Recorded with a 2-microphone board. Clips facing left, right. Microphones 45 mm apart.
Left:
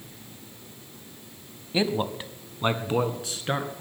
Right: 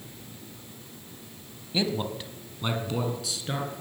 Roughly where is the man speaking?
Left.